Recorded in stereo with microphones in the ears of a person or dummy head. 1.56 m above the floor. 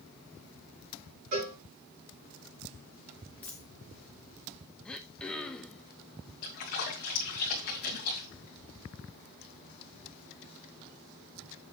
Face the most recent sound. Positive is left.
turn(degrees=45)  # may be behind; listen again after turning